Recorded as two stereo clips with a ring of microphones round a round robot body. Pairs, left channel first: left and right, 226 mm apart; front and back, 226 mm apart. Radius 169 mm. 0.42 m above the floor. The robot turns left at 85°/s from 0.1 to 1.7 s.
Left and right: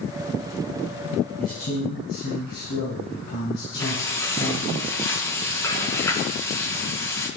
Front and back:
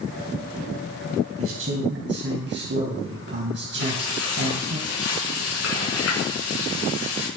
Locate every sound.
1.4 s a man speaking: 175° left, 3 m; by 4.8 s 145° left, 3 m
3.8 s frying: 15° left, 5.5 m